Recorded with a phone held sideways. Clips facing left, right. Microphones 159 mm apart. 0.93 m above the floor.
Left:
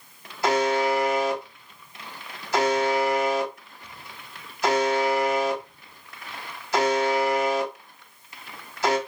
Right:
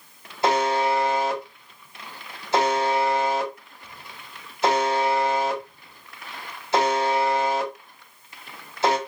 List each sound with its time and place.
0.4 s a buzzer: 25° right (ahead or behind), 1.1 m